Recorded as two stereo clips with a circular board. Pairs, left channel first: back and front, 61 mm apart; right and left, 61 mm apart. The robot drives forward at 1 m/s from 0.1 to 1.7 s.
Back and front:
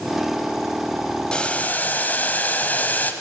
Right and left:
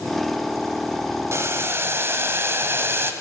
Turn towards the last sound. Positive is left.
turn(degrees=125)